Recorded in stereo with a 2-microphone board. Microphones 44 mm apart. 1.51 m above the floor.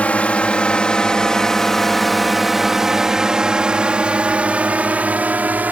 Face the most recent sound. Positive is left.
turn(degrees=-40)  # may be behind; listen again after turning